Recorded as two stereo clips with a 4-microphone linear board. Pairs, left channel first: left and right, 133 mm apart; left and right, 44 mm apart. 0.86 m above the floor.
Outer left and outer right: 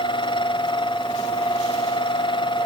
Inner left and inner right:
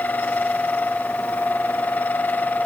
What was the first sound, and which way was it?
Only background noise.